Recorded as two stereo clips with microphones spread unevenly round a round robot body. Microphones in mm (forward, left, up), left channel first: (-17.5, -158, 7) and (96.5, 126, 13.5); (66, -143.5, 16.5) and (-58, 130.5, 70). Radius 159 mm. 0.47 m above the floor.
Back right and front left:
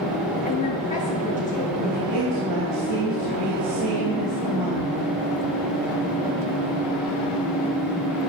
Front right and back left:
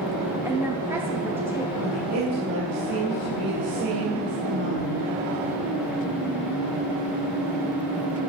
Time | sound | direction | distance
0.5 | a woman speaking | 150° right | 0.9 m
1.8 | a woman speaking | 80° left | 3 m